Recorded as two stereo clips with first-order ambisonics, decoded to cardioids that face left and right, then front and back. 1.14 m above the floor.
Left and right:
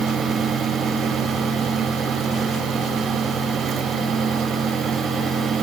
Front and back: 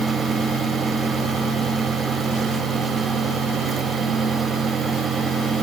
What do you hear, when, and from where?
Only background noise.